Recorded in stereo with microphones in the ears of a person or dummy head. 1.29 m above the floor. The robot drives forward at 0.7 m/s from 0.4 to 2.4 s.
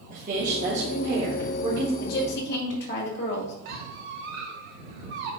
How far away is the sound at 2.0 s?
About 1.8 m.